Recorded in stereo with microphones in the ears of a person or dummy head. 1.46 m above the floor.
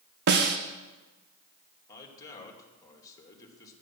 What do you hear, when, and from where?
0.3 s a snare drum: 60° right (ahead or behind), 0.9 m
1.9 s a man speaking: 20° left (ahead or behind), 2.5 m